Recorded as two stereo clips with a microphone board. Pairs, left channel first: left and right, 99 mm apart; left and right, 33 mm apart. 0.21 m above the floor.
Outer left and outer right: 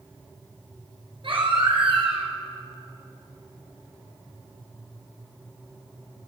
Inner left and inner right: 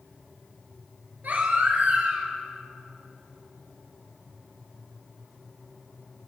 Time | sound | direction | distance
1.2 | a baby crying | 60° right (ahead or behind) | 3 m